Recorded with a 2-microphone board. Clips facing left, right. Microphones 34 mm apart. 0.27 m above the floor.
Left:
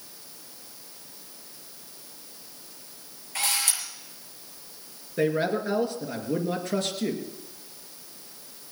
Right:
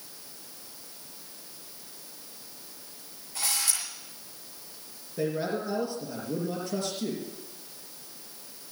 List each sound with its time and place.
3.4 s a camera shutter: 55° left (ahead or behind), 6.5 m
5.2 s a man speaking: 60° left (ahead or behind), 3.5 m